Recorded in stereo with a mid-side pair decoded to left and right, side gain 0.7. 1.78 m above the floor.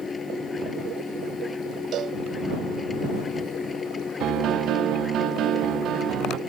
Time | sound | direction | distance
0.0 | a machine running | 20° left | ?
1.9 | a cowbell | 45° right | ?
4.2 | a piano | 50° right | ?